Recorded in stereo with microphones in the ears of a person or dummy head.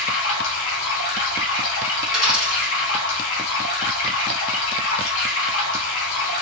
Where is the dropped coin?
5° right (ahead or behind), 2.5 m.